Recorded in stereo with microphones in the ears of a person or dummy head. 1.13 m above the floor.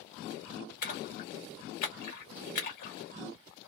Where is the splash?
50° left (ahead or behind), 1.2 m.